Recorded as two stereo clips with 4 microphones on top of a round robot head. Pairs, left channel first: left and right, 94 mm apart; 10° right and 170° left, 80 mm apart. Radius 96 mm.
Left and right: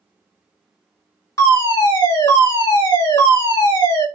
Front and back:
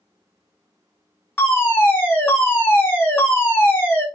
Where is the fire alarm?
45° left, 3 m.